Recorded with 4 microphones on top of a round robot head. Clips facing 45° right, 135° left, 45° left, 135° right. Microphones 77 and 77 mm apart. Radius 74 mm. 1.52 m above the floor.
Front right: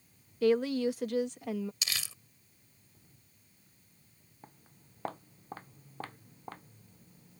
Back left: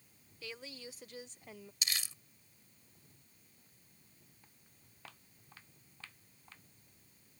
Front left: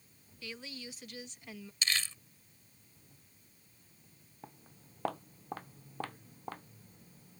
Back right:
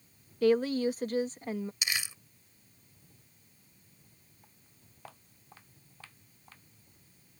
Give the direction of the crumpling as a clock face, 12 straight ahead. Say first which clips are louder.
Front right 2 dB, even; 2 o'clock.